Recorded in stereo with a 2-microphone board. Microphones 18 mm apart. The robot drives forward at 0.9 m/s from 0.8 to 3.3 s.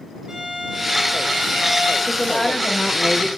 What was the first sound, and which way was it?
A violin, 70° right (ahead or behind).